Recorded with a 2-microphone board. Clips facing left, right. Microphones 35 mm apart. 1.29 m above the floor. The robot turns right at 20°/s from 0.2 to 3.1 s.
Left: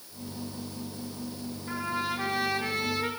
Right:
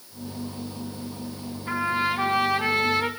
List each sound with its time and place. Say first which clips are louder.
1.7 s a trumpet: right 7 dB; 50° right (ahead or behind), 3 m; by 3.1 s 70° right (ahead or behind), 3 m